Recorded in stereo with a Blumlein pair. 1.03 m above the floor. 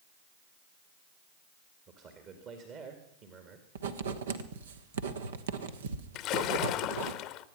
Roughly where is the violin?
I don't hear a violin.